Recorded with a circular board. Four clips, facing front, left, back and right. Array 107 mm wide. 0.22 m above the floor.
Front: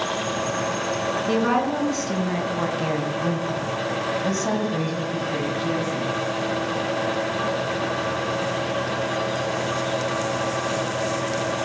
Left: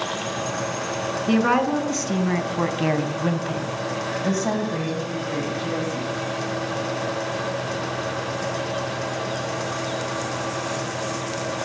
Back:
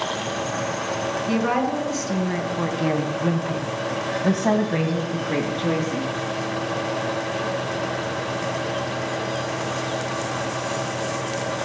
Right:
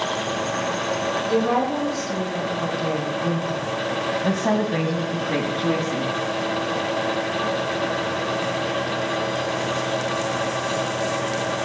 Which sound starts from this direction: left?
A woman speaking, at 1.3 s.